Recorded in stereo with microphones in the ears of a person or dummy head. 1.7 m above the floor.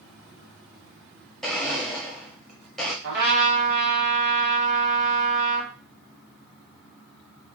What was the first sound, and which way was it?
A blender, centre (ahead or behind).